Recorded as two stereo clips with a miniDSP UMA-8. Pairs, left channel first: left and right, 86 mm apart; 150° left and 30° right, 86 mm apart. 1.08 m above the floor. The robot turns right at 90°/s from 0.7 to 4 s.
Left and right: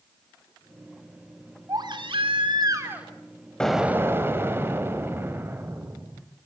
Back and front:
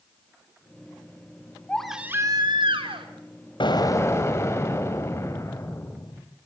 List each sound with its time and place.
1.7 s a baby crying: 135° right, 3 m; by 3.1 s 10° right, 3 m
3.6 s an explosion: 170° left, 2.5 m; by 6.2 s 150° right, 2.5 m